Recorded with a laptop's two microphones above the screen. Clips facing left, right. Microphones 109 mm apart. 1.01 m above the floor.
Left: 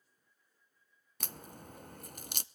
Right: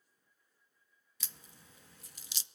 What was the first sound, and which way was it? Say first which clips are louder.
A crack: left 10 dB; 55° left (ahead or behind).